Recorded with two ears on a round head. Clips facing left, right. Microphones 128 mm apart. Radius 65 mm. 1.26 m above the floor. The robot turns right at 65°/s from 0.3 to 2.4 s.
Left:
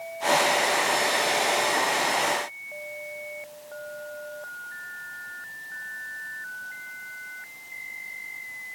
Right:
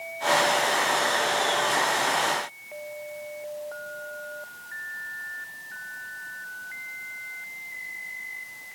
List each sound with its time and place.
Only background noise.